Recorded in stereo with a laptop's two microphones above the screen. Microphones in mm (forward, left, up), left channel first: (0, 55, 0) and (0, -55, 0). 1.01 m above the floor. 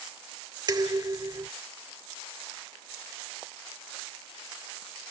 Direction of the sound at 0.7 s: 40° right (ahead or behind).